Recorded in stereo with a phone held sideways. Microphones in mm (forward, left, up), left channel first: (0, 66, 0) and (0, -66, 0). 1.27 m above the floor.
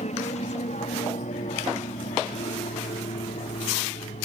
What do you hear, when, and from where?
0.0 s an aircraft: 60° left (ahead or behind); by 4.2 s 70° left (ahead or behind)